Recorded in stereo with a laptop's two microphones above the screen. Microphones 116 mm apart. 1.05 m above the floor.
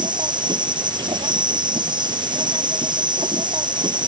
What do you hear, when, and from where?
0.0 s an insect: 40° right (ahead or behind)